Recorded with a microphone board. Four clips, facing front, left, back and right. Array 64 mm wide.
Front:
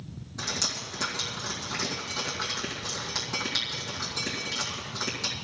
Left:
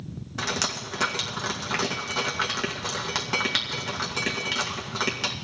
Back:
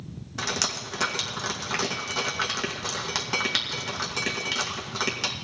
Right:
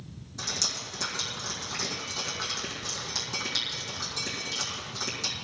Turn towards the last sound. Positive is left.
turn(degrees=120)